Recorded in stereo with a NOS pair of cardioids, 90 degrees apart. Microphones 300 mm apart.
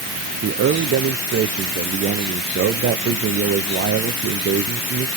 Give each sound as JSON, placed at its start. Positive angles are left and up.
{"t": 0.4, "sound": "a man speaking", "azimuth_deg": -45, "distance_m": 0.7}